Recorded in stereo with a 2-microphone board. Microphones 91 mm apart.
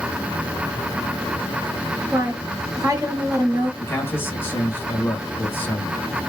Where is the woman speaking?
35° right (ahead or behind), 1.3 m.